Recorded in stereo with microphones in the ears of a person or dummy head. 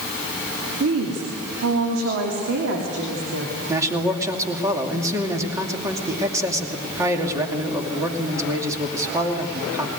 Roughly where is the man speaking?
Centre.